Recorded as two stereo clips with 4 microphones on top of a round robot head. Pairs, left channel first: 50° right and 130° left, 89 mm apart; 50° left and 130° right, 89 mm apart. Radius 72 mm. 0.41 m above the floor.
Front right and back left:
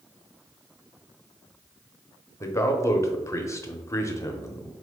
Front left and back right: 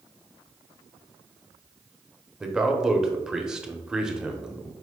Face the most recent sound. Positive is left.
turn(degrees=-55)